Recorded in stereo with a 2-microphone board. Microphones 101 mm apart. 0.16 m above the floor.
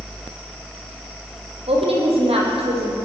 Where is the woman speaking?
70° right (ahead or behind), 7 m.